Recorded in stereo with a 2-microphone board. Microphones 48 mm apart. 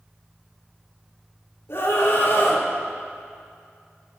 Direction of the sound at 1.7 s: 65° left (ahead or behind).